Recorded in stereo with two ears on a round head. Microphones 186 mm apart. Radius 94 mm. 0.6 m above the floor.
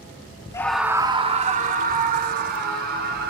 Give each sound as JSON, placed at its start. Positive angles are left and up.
{"t": 0.5, "sound": "a scream", "side_deg": 15, "distance_m": 0.6}